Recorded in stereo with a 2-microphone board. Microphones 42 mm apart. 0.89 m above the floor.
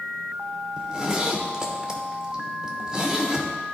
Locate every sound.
0.8 s a zipper: 20° right (ahead or behind), 0.9 m